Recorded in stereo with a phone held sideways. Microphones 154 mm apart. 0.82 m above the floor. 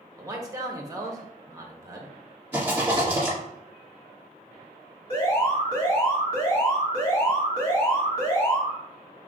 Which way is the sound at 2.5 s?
15° right (ahead or behind).